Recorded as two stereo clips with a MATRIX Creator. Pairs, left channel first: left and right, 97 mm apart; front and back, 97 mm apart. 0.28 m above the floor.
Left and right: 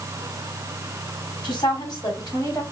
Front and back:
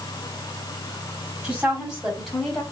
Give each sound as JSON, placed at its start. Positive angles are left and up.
{"t": 1.4, "sound": "a woman speaking", "azimuth_deg": 105, "distance_m": 2.0}